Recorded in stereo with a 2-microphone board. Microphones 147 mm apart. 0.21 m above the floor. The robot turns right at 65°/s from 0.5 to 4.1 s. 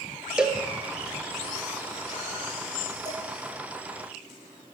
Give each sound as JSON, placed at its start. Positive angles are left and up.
{"t": 0.4, "sound": "a cowbell", "side_deg": -5, "distance_m": 0.7}
{"t": 3.0, "sound": "dishes clattering", "side_deg": 25, "distance_m": 1.8}